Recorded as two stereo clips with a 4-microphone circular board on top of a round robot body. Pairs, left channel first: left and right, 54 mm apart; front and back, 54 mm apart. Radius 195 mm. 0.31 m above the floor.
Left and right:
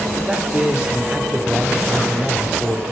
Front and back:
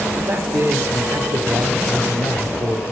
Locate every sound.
0.2 s a man speaking: 160° right, 2 m